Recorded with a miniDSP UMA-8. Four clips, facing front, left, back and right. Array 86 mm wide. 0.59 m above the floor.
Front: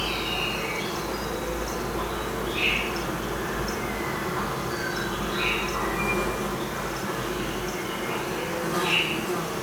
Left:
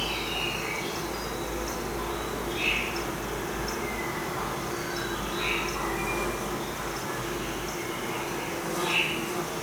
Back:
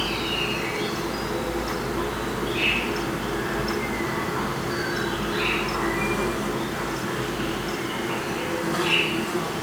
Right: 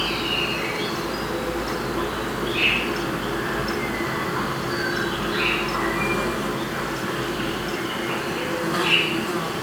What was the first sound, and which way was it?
An insect, 95° right.